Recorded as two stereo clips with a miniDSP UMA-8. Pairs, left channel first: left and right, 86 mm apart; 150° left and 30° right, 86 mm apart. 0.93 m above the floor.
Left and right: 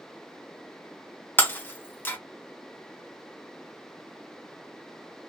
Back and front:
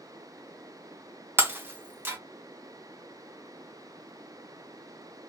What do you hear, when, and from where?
1.4 s breaking glass: 30° left, 0.7 m